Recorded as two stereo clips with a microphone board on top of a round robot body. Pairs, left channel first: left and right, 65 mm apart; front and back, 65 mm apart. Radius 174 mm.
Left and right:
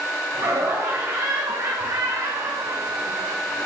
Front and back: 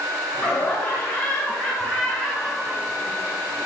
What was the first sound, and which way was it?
Laughter, 55° right.